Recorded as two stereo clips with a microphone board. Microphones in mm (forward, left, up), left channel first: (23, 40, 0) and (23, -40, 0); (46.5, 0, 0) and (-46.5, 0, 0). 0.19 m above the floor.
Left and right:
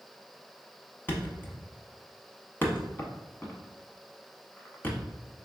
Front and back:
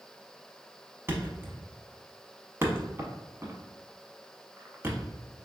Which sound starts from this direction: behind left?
A thud, at 1.1 s.